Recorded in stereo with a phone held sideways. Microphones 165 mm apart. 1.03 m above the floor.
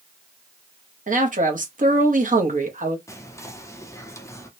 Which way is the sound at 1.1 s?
50° right (ahead or behind).